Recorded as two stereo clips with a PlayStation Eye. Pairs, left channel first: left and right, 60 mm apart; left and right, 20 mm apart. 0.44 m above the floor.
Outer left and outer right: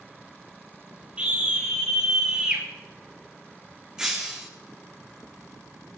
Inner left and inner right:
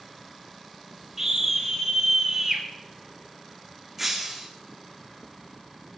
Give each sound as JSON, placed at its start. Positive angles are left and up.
{"t": 1.2, "sound": "a scream", "side_deg": -20, "distance_m": 9.0}
{"t": 4.0, "sound": "breaking glass", "side_deg": -10, "distance_m": 2.5}